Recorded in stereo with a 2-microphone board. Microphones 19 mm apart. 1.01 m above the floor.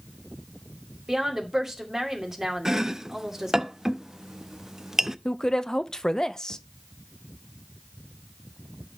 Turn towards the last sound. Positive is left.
turn(degrees=35)  # may be behind; listen again after turning